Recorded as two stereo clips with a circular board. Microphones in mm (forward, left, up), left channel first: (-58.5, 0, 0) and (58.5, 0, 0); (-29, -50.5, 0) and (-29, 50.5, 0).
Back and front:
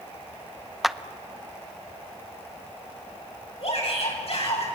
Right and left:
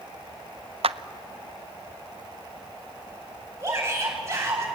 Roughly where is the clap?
Left.